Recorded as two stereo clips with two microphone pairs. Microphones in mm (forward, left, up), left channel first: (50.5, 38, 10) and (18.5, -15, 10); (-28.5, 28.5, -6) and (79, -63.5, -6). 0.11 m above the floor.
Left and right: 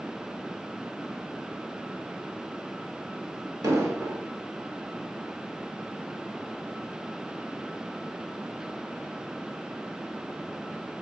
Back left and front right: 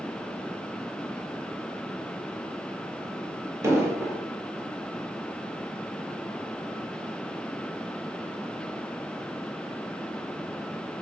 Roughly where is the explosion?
Right.